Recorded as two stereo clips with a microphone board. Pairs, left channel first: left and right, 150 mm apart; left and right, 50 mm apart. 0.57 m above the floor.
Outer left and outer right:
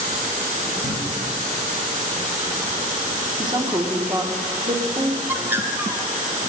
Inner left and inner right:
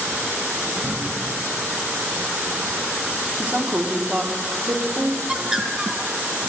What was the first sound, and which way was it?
A cupboard door, 65° right (ahead or behind).